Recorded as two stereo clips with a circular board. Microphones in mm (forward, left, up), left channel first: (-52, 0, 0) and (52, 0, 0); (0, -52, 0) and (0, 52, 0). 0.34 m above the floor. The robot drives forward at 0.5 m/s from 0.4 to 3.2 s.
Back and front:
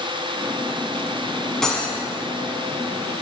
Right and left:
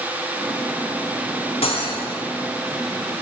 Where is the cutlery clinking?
95° right, 1.5 m; by 2.0 s 100° right, 1.6 m.